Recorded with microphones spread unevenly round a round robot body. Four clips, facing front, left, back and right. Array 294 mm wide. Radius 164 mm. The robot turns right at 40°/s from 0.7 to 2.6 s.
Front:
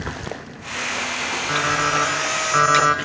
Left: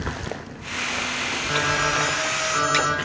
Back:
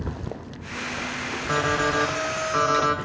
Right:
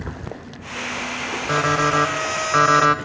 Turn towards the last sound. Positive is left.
turn(degrees=-60)